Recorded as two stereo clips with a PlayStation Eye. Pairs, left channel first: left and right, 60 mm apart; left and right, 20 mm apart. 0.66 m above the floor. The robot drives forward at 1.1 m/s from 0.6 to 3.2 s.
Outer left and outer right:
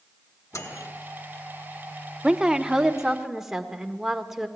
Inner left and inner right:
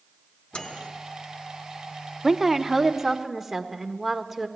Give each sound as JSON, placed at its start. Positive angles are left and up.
{"t": 0.5, "sound": "a microwave", "side_deg": 70, "distance_m": 1.4}
{"t": 2.2, "sound": "a woman speaking", "side_deg": -15, "distance_m": 0.7}